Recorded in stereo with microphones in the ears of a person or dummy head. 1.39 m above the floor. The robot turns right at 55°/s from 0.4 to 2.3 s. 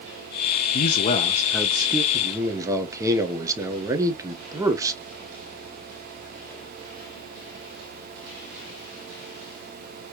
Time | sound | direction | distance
0.7 | a man speaking | 125° left | 0.8 m
2.1 | a man speaking | 30° right (ahead or behind) | 1.1 m